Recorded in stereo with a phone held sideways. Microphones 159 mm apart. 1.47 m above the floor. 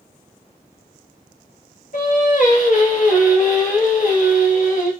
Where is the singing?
55° left (ahead or behind), 0.9 m.